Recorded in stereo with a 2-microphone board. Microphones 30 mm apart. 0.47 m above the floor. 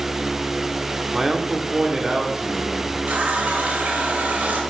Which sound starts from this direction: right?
A running tap, at 3.1 s.